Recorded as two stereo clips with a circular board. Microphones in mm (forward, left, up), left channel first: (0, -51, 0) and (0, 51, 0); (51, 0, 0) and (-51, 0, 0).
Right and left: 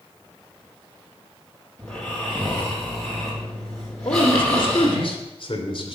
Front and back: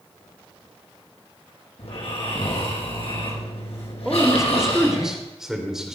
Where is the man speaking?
95° right, 2.5 m.